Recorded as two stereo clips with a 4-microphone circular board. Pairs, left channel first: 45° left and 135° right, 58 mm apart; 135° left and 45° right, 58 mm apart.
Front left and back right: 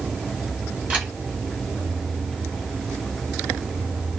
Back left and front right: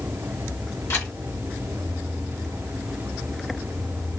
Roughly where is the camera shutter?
Behind.